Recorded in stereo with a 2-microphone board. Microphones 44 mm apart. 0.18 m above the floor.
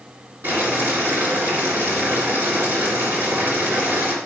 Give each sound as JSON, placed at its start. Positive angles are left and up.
{"t": 0.4, "sound": "boiling", "side_deg": -60, "distance_m": 3.0}